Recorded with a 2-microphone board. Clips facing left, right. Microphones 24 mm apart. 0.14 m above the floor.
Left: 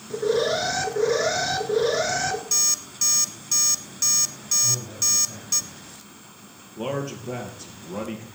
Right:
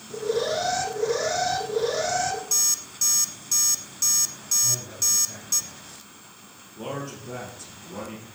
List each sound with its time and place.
0.1 s an alarm: 25° left (ahead or behind), 1.3 m
2.5 s an alarm clock: 15° left (ahead or behind), 0.8 m
4.6 s a man speaking: centre (ahead or behind), 6 m
6.8 s a man speaking: 30° left (ahead or behind), 2.5 m